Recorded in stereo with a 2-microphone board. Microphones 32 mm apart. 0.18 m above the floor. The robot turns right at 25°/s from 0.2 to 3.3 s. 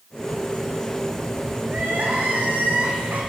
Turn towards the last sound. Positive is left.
turn(degrees=-90)